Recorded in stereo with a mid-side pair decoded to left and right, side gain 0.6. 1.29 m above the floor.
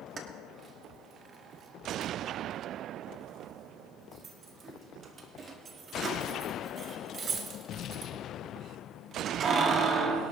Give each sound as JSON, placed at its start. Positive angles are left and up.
{"t": 0.2, "sound": "keys jangling", "azimuth_deg": -40, "distance_m": 1.6}